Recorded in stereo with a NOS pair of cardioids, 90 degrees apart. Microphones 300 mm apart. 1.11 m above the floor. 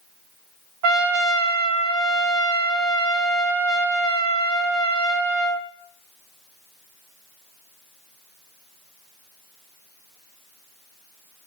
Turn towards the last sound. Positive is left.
turn(degrees=-70)